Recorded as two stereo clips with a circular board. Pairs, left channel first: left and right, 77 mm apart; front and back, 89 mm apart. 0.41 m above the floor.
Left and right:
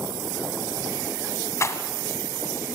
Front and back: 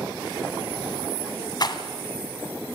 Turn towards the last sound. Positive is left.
turn(degrees=40)